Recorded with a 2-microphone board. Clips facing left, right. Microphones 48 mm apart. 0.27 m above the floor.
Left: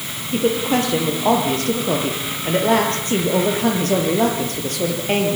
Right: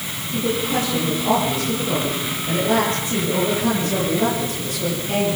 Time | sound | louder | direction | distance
0.3 | a woman speaking | left 4 dB | 60° left (ahead or behind) | 7.5 m